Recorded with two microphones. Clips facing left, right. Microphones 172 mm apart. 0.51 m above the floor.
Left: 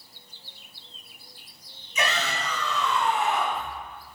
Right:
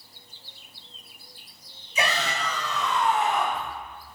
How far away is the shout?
About 3.5 m.